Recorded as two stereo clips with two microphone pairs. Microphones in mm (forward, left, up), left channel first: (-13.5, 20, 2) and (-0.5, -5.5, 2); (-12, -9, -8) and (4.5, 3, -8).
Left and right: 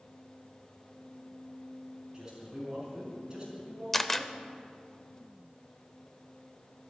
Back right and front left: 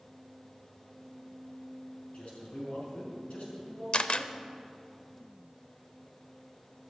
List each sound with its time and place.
2.1 s a man speaking: 130° right, 5 m
3.9 s a camera shutter: 170° right, 0.5 m